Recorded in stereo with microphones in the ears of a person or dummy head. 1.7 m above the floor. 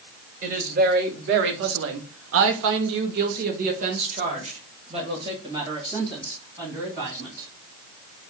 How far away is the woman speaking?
About 1.3 m.